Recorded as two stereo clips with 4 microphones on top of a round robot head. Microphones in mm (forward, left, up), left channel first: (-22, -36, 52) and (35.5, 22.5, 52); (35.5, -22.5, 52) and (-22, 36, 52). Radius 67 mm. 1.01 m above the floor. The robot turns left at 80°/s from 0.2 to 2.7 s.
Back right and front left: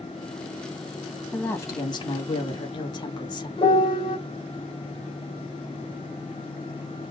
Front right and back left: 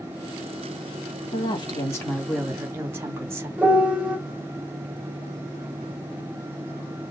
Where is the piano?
150° right, 3 m.